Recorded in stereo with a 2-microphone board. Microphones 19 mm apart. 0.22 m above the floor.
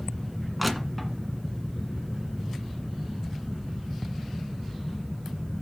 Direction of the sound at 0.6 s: 5° left (ahead or behind).